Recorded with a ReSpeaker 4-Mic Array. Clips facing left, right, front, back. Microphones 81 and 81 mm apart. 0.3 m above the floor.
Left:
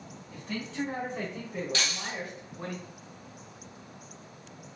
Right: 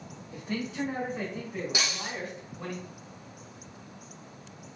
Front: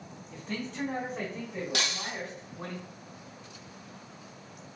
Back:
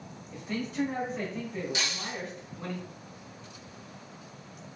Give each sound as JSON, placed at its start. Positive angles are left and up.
{"t": 0.3, "sound": "a man speaking", "azimuth_deg": -135, "distance_m": 1.3}
{"t": 1.7, "sound": "breaking glass", "azimuth_deg": -15, "distance_m": 0.8}